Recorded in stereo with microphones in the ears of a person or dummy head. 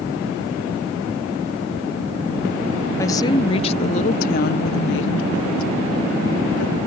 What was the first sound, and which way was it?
A woman speaking, 15° left (ahead or behind).